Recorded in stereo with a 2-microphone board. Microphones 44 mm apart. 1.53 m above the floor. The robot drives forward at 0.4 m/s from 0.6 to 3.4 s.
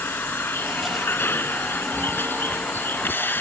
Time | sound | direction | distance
0.0 | a vehicle | 60° left (ahead or behind) | ?